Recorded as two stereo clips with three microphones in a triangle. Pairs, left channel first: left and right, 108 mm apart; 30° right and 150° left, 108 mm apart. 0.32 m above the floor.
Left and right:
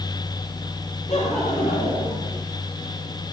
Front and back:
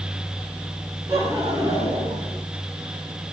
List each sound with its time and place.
1.1 s laughter: 85° left, 6 m; by 2.4 s 95° left, 6.5 m